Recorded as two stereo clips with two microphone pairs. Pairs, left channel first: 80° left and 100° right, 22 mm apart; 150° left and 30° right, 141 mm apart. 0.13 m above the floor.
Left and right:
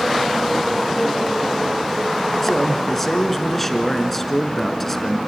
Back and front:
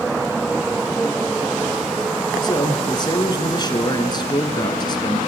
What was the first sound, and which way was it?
A man speaking, 145° left.